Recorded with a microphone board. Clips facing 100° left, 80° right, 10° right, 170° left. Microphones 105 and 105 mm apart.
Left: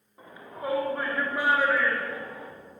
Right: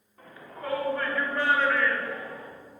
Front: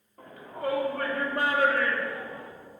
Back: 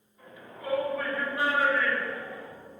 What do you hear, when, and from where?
0.2 s a shout: 25° left, 4.5 m; by 2.5 s 15° left, 3 m